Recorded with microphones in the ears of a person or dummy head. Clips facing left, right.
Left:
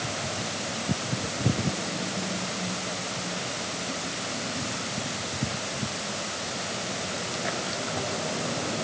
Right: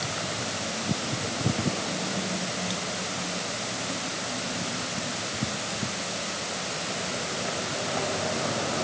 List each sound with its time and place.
Only background noise.